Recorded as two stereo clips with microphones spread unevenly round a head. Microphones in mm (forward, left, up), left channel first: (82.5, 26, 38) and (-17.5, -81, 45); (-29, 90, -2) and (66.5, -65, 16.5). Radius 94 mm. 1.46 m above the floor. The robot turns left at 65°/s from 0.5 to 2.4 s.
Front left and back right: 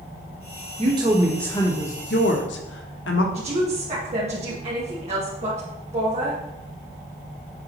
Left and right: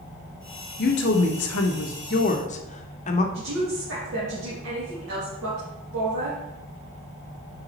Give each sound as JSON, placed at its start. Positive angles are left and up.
{"t": 0.8, "sound": "a woman speaking", "azimuth_deg": 170, "distance_m": 1.2}
{"t": 3.3, "sound": "a woman speaking", "azimuth_deg": -85, "distance_m": 2.5}